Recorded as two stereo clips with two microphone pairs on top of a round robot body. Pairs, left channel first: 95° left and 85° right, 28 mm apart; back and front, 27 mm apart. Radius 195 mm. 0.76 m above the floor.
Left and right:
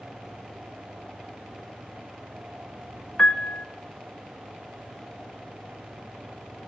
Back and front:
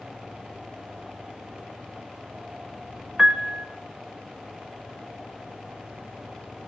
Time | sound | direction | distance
3.2 | a piano | 55° left | 0.7 m